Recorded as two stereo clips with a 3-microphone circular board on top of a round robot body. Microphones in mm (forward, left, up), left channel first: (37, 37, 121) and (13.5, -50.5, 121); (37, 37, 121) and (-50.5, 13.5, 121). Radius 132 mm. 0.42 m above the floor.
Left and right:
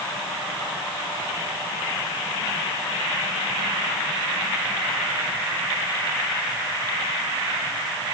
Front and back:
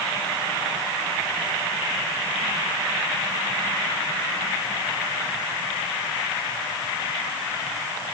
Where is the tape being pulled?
No tape being pulled in this recording.